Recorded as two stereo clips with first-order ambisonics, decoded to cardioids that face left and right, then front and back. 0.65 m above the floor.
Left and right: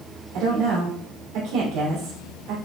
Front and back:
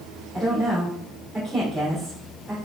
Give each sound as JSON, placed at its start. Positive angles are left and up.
{"t": 0.3, "sound": "a woman speaking", "azimuth_deg": -95, "distance_m": 2.5}